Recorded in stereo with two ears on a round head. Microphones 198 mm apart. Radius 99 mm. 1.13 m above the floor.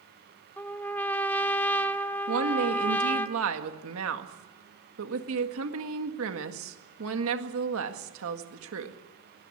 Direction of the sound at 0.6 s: 10° left (ahead or behind).